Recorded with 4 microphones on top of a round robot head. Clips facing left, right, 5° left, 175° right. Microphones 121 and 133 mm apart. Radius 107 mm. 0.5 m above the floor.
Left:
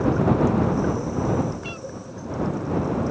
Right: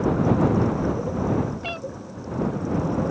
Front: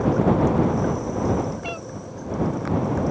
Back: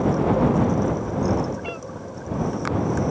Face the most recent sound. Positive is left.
turn(degrees=-65)